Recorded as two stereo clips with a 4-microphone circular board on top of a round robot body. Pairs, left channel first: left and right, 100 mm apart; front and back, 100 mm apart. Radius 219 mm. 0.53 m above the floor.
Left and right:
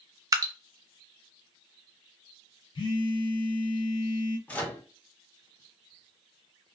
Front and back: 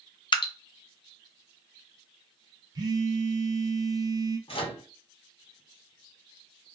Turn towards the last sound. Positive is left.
turn(degrees=15)